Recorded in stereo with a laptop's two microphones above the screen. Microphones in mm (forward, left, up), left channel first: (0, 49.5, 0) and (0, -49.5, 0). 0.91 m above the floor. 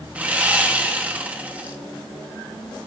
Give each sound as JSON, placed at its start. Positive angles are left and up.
{"t": 0.1, "sound": "sawing", "side_deg": -15, "distance_m": 0.9}